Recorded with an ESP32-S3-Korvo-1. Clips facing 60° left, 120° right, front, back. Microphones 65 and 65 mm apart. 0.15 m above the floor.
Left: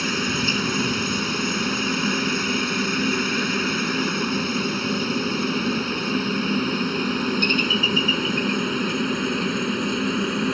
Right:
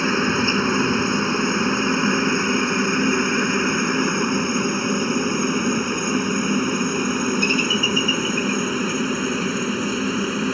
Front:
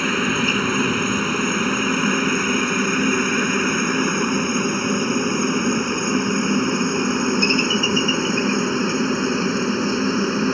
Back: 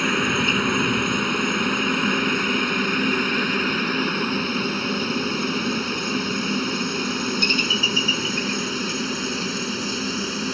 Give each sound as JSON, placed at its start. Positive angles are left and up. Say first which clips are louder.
{"t": 0.0, "sound": "a helicopter", "louder": "right 5 dB, front 1 dB", "azimuth_deg": -85}